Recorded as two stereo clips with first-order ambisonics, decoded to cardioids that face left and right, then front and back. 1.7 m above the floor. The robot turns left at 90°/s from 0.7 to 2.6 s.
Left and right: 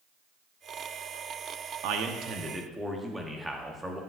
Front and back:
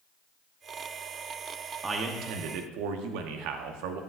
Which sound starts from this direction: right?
A man speaking, at 1.8 s.